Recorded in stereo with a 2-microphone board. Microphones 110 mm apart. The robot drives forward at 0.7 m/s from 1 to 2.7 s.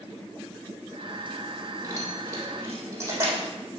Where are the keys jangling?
30° right (ahead or behind), 3 m; by 3.5 s 25° right (ahead or behind), 3.5 m.